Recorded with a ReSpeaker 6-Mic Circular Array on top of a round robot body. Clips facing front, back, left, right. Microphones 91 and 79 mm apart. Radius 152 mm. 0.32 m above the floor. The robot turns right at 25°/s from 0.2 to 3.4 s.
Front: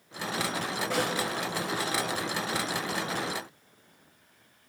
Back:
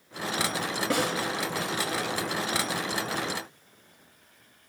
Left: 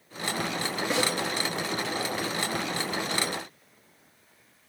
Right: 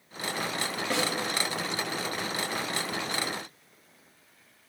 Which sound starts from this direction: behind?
A snare drum, at 0.9 s.